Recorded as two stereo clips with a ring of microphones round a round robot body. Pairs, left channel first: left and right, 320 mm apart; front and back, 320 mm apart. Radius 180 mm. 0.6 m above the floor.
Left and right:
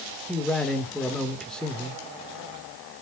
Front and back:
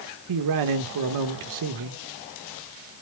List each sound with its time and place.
0.3 s a man speaking: straight behind, 1.9 m